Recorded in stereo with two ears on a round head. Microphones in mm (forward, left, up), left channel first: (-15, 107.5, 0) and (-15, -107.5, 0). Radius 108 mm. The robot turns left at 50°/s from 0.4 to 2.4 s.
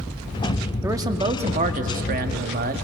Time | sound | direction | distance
0.8 | a man speaking | 15° right | 0.7 m